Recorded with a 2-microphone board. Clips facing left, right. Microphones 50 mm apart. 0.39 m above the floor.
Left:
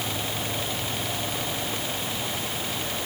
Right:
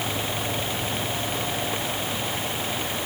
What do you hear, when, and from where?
Only background noise.